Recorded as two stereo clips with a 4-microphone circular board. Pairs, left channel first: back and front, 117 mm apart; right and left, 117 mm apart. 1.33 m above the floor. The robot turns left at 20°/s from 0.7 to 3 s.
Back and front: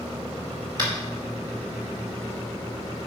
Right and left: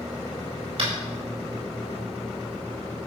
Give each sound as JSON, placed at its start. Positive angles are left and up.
{"t": 0.8, "sound": "tapping", "azimuth_deg": 50, "distance_m": 4.0}